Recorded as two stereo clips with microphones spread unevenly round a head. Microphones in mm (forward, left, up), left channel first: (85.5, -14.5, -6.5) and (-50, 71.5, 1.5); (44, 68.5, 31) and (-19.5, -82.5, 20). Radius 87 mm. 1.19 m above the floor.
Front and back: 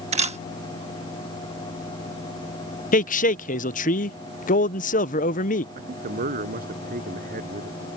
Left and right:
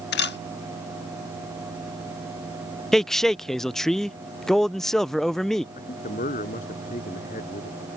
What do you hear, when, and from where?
0.1 s a camera shutter: 100° left
2.9 s a man speaking: 25° right
5.8 s a man speaking: 115° left